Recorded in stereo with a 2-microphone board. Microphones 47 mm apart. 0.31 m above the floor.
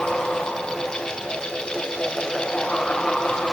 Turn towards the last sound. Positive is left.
No sound to turn to.